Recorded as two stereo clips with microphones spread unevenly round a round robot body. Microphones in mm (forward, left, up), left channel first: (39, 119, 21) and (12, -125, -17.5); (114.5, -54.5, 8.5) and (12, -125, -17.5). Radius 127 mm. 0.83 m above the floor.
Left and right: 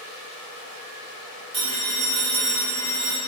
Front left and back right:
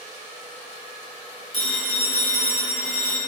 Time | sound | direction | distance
1.5 | a phone ringing | 95° right | 1.6 m